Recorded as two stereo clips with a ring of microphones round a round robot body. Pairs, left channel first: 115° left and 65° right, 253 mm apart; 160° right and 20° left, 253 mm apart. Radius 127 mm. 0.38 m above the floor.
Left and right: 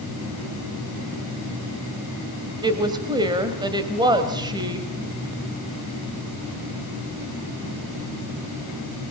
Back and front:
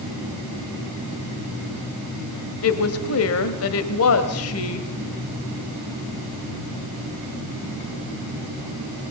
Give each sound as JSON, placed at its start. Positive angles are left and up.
{"t": 2.6, "sound": "a woman speaking", "azimuth_deg": -140, "distance_m": 1.7}